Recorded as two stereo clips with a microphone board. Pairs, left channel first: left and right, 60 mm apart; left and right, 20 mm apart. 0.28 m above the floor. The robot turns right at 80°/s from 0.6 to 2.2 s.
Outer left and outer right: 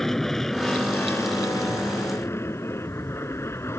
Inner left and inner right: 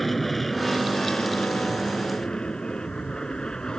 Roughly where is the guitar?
No guitar in this recording.